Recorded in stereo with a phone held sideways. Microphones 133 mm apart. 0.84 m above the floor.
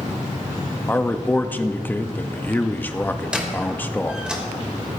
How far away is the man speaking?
About 0.8 m.